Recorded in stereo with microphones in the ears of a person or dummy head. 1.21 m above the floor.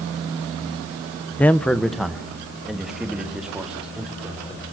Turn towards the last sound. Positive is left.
turn(degrees=-5)  # may be behind; listen again after turning